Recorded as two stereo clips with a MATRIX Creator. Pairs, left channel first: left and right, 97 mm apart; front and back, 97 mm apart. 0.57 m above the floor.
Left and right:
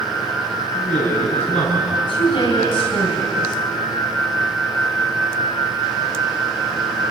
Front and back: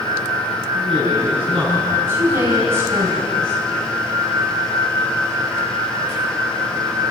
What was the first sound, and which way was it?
A man speaking, 170° left.